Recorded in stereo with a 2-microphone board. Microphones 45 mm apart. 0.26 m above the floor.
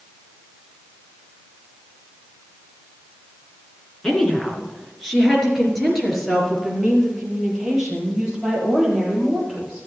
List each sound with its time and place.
4.0 s a woman speaking: 10° left (ahead or behind), 3 m; by 9.9 s 10° right (ahead or behind), 7.5 m